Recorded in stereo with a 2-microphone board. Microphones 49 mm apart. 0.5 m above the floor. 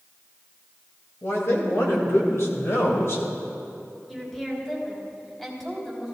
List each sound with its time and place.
1.2 s a man speaking: 55° left (ahead or behind), 3 m; by 3.2 s 60° left (ahead or behind), 2 m
4.1 s a woman speaking: 10° left (ahead or behind), 3 m